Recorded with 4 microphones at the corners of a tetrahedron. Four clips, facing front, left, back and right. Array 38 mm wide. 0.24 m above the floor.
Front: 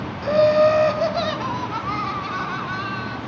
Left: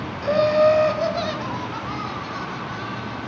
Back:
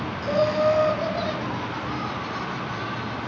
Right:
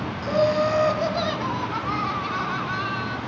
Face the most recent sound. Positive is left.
turn(degrees=-50)